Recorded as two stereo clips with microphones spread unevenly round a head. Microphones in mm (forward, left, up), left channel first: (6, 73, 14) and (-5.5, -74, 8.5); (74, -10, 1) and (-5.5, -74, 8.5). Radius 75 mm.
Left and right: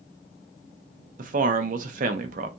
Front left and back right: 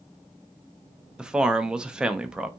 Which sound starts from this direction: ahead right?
A man speaking, at 1.2 s.